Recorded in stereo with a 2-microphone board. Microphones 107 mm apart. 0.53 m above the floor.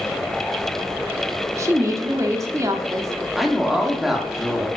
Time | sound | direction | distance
1.6 | a woman speaking | 30° right (ahead or behind) | 0.8 m
3.4 | a woman speaking | 5° right (ahead or behind) | 1.1 m